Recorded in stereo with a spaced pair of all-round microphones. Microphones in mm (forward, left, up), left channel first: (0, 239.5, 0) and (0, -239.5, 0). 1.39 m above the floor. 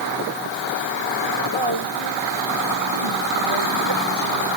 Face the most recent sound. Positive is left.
turn(degrees=-65)  # may be behind; listen again after turning